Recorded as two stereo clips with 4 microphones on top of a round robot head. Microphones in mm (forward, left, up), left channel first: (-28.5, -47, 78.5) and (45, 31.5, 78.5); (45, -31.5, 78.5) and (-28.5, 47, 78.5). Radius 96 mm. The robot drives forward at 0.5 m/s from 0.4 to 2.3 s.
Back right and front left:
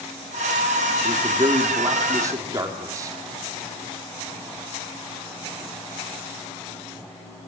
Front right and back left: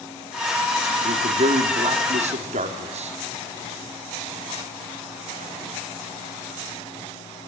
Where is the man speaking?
100° left, 3 m; by 3.2 s 110° left, 3 m.